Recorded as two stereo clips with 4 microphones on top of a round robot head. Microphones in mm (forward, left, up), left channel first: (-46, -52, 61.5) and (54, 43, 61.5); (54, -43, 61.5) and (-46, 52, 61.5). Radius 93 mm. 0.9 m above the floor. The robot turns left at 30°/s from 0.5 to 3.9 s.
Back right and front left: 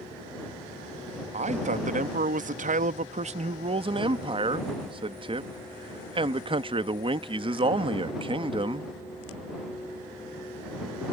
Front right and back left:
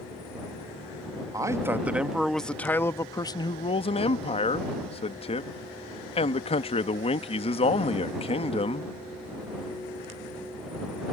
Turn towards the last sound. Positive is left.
turn(degrees=-5)